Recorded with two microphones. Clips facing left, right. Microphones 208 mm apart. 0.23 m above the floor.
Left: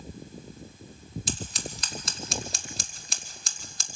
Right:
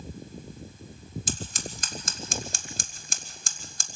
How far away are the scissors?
About 1.3 m.